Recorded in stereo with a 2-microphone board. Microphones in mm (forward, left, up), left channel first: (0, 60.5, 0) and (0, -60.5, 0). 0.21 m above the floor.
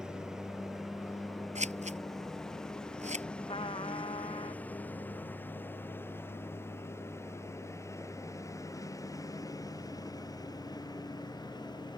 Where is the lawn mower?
5° right (ahead or behind); by 12.0 s 35° left (ahead or behind).